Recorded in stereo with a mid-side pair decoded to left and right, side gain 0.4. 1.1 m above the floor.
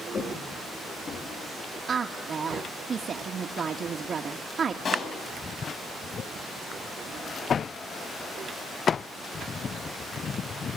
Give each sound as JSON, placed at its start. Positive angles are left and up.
{"t": 0.1, "sound": "footsteps", "azimuth_deg": 60, "distance_m": 8.5}
{"t": 1.9, "sound": "a woman speaking", "azimuth_deg": -50, "distance_m": 1.6}
{"t": 4.8, "sound": "a pop", "azimuth_deg": 65, "distance_m": 6.5}